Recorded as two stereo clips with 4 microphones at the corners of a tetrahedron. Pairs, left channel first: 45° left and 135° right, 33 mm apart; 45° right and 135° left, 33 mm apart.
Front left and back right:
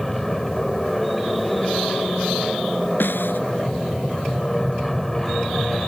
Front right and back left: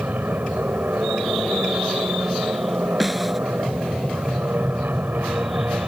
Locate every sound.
0.0 s an aircraft: 125° left
3.0 s a snare drum: 50° left